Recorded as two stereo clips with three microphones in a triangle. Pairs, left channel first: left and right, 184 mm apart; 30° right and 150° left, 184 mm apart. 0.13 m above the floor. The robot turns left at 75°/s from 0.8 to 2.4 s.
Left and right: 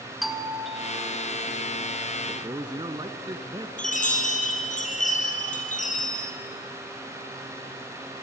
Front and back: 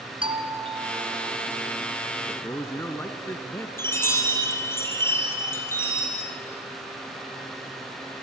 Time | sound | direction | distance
0.2 | a doorbell | straight behind | 1.8 m
2.3 | a man speaking | 75° right | 1.1 m
3.8 | a chime | 45° left | 3 m